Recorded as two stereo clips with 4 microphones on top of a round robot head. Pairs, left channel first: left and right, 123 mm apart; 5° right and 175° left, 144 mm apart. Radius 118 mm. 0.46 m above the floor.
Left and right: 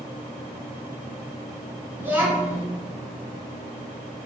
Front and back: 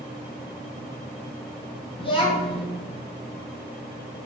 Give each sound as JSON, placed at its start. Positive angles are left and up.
{"t": 2.0, "sound": "a child speaking", "azimuth_deg": -25, "distance_m": 0.6}